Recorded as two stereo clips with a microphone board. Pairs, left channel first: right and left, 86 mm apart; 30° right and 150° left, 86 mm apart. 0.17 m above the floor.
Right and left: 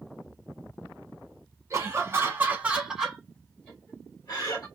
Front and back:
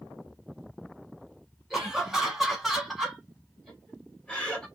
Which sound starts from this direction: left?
Laughter, at 1.7 s.